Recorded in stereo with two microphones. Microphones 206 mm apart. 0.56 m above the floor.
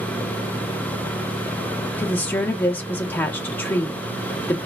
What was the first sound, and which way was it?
A woman speaking, 10° left (ahead or behind).